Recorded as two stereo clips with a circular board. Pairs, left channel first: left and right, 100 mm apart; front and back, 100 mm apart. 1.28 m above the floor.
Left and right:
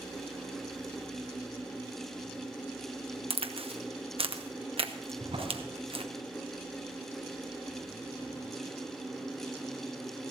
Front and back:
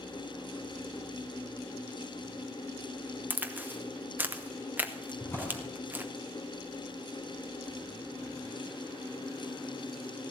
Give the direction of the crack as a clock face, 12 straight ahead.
4 o'clock.